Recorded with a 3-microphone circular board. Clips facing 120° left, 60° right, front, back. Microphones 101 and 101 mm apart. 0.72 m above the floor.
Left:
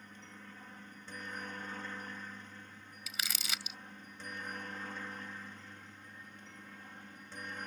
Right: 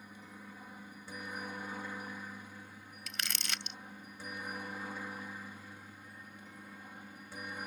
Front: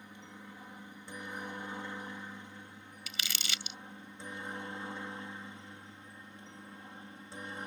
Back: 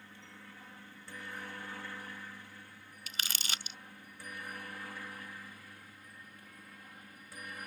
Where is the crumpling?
155° right.